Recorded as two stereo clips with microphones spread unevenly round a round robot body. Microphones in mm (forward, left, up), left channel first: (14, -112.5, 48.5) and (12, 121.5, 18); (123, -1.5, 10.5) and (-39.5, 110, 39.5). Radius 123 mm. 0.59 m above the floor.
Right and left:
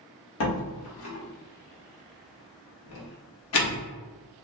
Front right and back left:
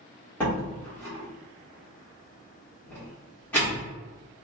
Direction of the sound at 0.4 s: 110° right.